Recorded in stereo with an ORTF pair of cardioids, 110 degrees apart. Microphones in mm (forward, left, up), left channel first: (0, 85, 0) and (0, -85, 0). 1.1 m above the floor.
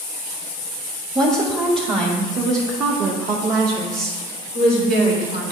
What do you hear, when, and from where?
1.1 s a woman speaking: 15° right, 1.3 m; by 5.5 s 65° right, 3 m